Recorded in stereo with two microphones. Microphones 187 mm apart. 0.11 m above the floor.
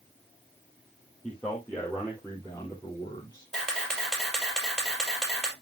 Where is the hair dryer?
I don't hear a hair dryer.